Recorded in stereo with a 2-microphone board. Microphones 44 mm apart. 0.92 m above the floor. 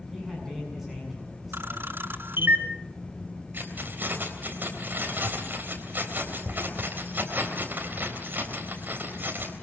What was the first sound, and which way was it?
A man speaking, 5° right (ahead or behind).